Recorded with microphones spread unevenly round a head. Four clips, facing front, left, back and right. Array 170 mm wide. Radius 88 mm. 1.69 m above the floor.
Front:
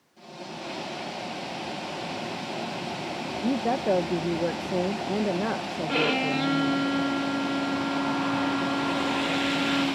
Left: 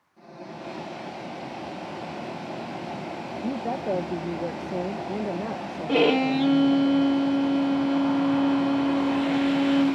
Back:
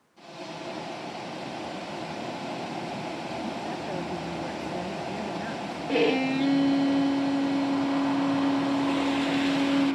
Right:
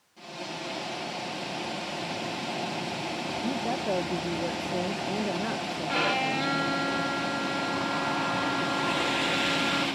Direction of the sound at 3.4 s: 10° left.